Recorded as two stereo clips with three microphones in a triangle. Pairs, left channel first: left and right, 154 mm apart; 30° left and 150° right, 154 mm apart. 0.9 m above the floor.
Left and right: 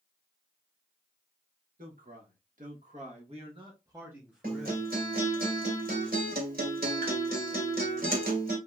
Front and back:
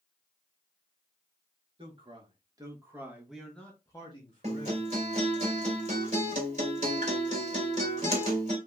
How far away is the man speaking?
About 2 m.